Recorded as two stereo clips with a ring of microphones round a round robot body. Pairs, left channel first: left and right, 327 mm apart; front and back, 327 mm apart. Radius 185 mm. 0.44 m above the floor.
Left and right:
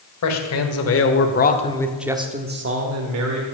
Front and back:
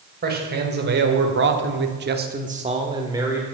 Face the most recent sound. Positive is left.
turn(degrees=-95)